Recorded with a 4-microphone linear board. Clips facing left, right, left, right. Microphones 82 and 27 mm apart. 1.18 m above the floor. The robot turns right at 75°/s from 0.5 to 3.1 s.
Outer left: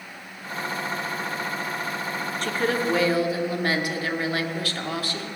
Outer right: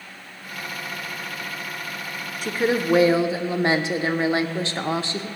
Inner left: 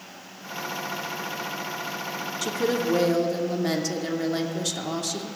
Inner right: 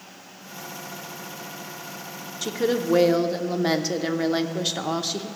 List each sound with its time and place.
2.4 s a woman speaking: 10° right (ahead or behind), 0.6 m; by 5.3 s 25° right (ahead or behind), 0.6 m